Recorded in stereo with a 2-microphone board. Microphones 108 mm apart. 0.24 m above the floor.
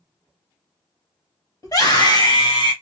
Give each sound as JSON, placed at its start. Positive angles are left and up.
{"t": 1.6, "sound": "a scream", "side_deg": 35, "distance_m": 1.7}